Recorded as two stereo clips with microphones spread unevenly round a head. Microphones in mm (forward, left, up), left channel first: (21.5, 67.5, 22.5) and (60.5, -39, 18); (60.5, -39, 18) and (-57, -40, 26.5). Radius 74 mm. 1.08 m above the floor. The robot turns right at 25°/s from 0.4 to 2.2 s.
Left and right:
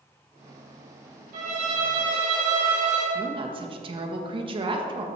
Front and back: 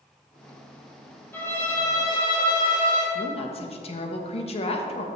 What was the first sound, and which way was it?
A violin, 70° right.